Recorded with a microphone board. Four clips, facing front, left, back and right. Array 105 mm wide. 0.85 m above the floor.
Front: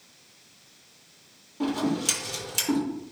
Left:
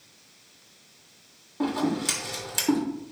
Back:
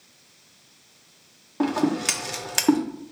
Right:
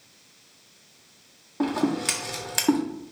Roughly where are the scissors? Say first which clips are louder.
Right 2 dB, back 4 dB; behind right.